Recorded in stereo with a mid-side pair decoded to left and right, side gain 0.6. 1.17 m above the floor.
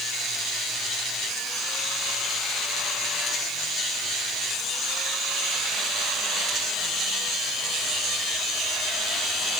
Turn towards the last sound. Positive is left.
No sound to turn to.